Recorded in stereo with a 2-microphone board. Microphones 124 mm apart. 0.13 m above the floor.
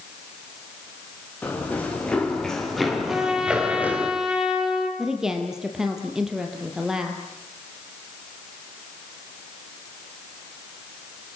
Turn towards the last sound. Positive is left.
turn(degrees=-5)  # may be behind; listen again after turning